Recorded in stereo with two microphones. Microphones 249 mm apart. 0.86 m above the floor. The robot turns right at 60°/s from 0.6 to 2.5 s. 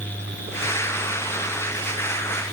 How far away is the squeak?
No squeak in this recording.